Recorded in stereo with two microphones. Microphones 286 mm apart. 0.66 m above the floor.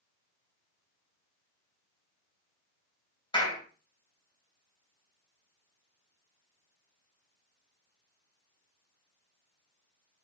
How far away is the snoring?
No snoring in this recording.